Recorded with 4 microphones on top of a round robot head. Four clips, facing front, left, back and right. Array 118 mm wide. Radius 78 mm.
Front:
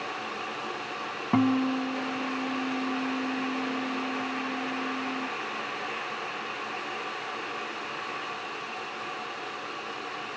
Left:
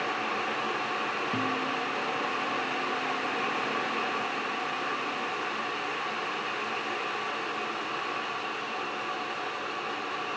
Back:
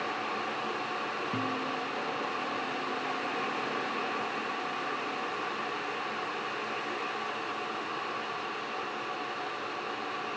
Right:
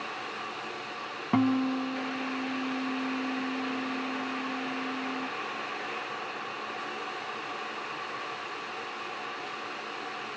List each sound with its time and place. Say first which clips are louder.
1.3 s a guitar: right 9 dB, front 13 dB; 35° right